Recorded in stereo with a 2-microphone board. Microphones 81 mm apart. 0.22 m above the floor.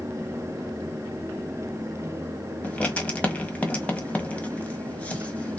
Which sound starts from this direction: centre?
Writing, at 2.6 s.